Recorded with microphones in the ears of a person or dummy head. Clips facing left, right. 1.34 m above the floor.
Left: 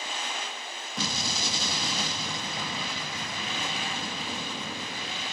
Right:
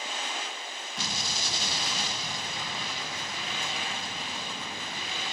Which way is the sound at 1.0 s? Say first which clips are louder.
Left 5 dB; 65° left (ahead or behind).